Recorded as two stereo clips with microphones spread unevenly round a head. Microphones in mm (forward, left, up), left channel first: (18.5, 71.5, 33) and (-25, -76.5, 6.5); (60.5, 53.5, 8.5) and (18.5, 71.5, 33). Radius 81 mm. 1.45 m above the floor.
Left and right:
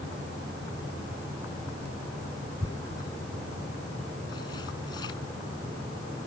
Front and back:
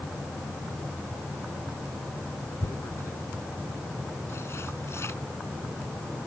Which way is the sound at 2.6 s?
10° left.